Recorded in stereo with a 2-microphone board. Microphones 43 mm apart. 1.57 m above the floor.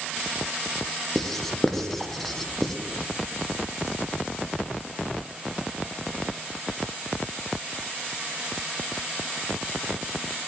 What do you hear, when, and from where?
1.1 s writing: 5° left (ahead or behind), 0.6 m